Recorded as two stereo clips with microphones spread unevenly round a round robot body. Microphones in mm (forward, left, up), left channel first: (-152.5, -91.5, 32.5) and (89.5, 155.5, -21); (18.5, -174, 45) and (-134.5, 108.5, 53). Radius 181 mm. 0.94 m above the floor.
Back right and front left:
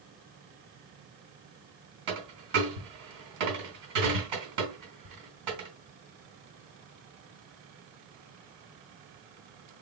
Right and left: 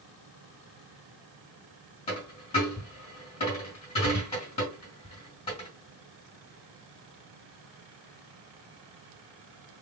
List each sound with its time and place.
2.1 s a dropped coin: 15° left, 2.5 m